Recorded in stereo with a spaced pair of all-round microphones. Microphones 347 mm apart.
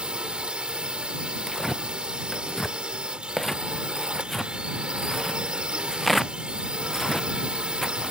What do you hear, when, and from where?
0.0 s a drone: 5° right (ahead or behind)
1.5 s tearing paper: centre (ahead or behind)